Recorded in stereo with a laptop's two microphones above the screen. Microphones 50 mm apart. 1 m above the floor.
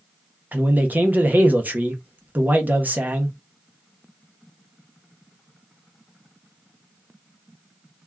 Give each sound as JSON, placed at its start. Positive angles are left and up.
{"t": 0.5, "sound": "a man speaking", "side_deg": -35, "distance_m": 0.6}